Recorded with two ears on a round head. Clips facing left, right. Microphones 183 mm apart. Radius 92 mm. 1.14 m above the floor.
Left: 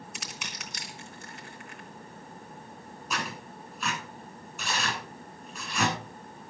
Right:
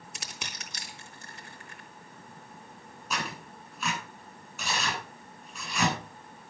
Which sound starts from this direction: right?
Crushing, at 0.1 s.